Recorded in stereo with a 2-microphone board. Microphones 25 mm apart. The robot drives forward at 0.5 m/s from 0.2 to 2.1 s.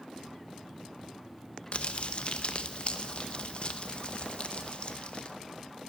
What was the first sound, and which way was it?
Crumpling, 50° left (ahead or behind).